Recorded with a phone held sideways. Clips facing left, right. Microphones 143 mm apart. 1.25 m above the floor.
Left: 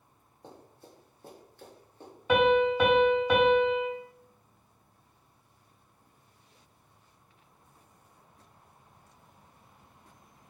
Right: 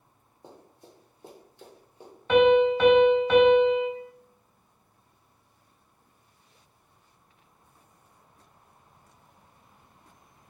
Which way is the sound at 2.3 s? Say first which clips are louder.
Right 4 dB; 10° left (ahead or behind).